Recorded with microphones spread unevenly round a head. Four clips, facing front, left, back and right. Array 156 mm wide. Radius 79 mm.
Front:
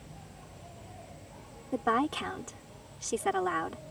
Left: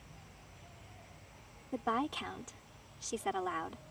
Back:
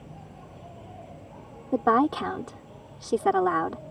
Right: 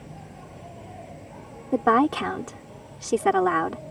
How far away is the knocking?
I don't hear knocking.